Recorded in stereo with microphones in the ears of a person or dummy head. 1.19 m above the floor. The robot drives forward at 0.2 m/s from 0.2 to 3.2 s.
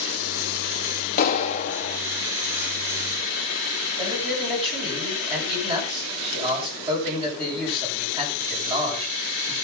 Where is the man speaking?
25° right (ahead or behind), 9.5 m.